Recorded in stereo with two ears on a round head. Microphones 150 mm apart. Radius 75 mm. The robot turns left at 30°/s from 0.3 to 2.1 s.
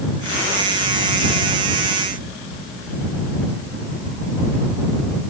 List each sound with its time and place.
Only background noise.